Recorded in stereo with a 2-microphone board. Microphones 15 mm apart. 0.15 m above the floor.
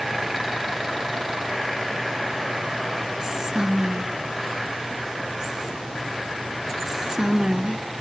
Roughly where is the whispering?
Right.